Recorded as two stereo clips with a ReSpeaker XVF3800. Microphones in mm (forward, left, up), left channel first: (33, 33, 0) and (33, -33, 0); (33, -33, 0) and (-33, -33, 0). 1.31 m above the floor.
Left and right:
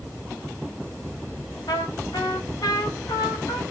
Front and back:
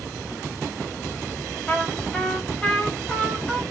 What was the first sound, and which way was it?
A trumpet, 70° left.